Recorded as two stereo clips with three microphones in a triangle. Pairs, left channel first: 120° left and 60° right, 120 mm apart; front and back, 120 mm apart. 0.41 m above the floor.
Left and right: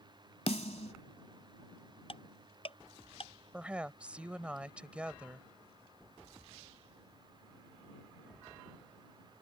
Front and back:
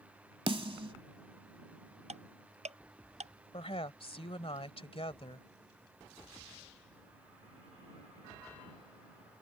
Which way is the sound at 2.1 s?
160° left.